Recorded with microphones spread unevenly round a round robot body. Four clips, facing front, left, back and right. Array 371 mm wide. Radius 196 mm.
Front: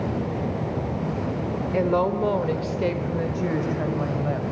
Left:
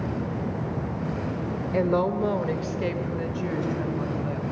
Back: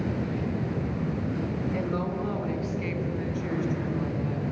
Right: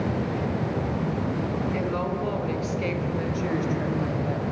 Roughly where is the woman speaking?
Ahead left.